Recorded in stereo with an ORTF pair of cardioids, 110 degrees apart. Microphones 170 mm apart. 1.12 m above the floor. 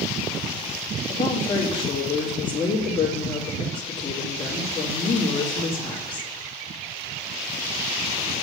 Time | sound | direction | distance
1.1 | a woman speaking | 30° left | 2 m